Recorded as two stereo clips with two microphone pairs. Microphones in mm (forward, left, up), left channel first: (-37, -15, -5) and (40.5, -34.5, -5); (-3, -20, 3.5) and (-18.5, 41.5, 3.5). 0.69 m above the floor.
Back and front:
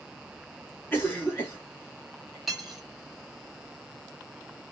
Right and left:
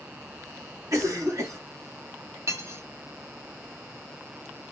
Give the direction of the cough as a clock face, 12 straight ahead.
8 o'clock.